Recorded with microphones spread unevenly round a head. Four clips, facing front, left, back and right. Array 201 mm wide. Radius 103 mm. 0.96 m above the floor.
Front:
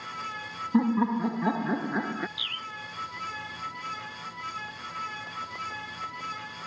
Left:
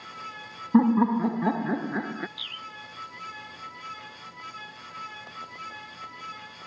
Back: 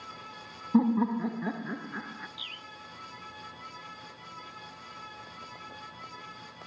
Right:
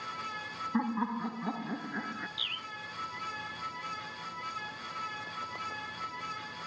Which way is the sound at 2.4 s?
45° right.